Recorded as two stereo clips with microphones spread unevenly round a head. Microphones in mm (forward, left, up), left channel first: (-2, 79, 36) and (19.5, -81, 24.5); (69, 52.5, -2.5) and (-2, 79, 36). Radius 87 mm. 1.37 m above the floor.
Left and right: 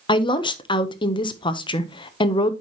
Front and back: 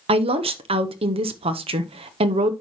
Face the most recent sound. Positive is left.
turn(degrees=160)